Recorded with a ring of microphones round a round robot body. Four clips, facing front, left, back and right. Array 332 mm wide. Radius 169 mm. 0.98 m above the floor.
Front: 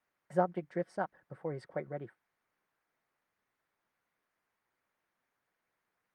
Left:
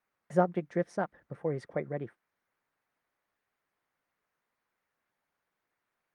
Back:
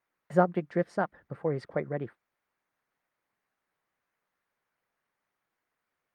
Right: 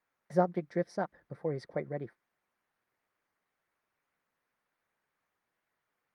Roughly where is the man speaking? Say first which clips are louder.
Left 1 dB, back 6 dB; behind.